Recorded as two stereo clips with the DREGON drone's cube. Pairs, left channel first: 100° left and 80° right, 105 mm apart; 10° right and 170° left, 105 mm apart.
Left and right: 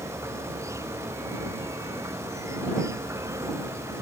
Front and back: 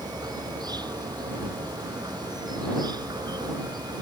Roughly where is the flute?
No flute in this recording.